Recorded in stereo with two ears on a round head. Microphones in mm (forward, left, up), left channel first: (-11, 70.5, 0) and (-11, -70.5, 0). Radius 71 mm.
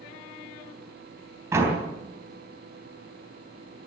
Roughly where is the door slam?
Centre.